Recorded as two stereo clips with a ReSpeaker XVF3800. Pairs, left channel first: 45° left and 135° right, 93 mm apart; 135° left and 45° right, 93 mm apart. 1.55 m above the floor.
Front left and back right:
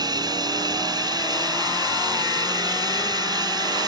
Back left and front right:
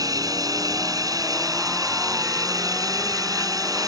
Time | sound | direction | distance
0.0 | running water | 90° right | ?